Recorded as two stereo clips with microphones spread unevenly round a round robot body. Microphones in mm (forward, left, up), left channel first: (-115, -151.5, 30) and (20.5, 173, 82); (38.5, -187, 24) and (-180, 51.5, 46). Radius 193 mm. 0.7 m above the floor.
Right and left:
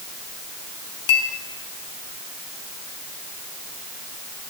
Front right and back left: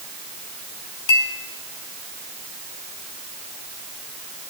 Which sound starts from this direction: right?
A clink, at 1.1 s.